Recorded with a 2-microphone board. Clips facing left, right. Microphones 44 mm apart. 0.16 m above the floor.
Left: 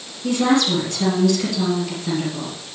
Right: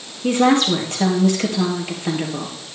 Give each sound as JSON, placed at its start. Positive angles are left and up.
{"t": 0.2, "sound": "a woman speaking", "side_deg": -40, "distance_m": 3.0}